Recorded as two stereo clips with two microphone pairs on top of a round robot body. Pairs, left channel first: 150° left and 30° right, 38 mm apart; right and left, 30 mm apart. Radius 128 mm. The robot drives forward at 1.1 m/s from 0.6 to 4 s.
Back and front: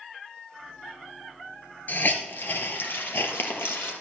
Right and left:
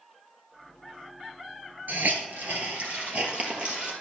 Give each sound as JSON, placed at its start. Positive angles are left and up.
{"t": 1.9, "sound": "a hiss", "azimuth_deg": 110, "distance_m": 2.5}